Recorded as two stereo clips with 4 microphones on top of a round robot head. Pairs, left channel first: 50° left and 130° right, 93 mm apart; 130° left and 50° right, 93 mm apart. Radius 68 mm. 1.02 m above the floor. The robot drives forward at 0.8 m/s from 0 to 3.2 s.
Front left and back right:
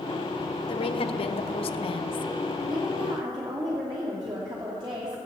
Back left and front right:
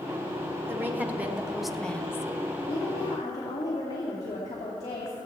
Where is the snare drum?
No snare drum in this recording.